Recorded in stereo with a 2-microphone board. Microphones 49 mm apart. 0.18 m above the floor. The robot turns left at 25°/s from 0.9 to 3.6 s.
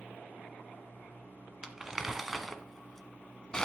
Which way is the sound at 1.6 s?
15° right (ahead or behind).